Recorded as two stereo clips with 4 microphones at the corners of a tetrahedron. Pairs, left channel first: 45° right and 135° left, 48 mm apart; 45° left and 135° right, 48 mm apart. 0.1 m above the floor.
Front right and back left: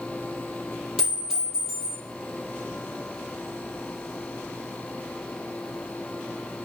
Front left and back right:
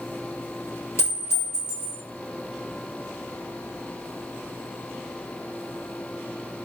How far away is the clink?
About 1.7 m.